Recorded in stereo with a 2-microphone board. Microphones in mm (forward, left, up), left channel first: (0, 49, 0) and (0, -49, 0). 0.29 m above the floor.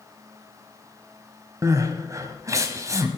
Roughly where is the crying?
Right.